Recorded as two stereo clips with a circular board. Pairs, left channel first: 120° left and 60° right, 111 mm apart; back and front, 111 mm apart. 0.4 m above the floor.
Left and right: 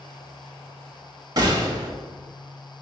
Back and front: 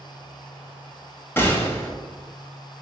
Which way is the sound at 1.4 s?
110° right.